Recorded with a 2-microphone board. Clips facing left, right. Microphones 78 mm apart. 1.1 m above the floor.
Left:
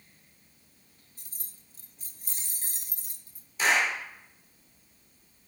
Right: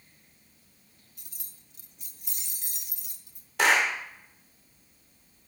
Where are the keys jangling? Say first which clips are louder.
Even; 35° left (ahead or behind), 0.7 m.